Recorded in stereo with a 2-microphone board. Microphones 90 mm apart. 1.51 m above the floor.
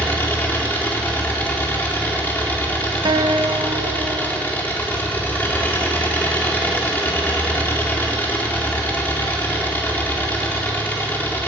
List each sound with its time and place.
0.0 s an engine running: 20° left (ahead or behind), 3.5 m
3.0 s a guitar: 60° right (ahead or behind), 1.4 m